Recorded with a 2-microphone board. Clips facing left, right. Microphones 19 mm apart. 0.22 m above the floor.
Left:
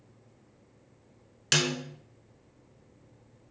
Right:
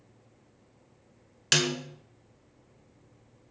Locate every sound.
1.5 s a snare drum: 10° right (ahead or behind), 0.6 m